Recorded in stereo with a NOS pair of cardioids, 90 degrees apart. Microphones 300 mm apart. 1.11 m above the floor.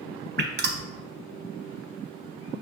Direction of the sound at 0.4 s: 35° right.